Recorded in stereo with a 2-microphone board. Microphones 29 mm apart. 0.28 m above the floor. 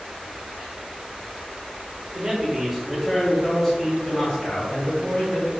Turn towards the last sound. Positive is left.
turn(degrees=45)  # may be behind; listen again after turning